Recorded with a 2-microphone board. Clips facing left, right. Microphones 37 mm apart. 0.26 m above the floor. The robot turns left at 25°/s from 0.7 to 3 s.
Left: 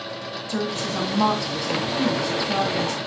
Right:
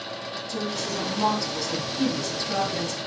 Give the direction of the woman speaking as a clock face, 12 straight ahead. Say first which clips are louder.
Left 4 dB; 10 o'clock.